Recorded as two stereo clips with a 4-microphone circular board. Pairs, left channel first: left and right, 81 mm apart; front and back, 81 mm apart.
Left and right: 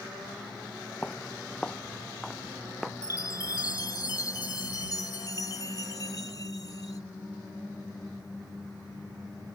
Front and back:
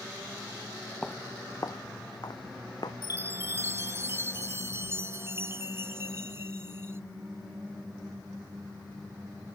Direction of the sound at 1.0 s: 55° left.